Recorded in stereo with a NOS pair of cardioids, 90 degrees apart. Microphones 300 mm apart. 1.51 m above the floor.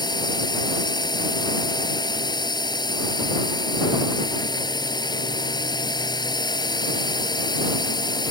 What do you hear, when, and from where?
0.0 s a drone: 15° left